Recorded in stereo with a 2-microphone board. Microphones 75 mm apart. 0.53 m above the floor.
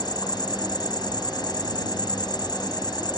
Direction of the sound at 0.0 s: 75° left (ahead or behind).